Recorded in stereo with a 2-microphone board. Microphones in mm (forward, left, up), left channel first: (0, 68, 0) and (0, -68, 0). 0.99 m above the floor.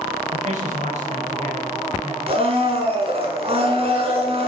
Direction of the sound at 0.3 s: 60° right (ahead or behind).